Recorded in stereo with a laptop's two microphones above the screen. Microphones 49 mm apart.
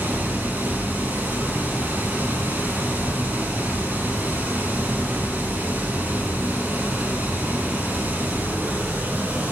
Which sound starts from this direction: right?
Running water, at 0.0 s.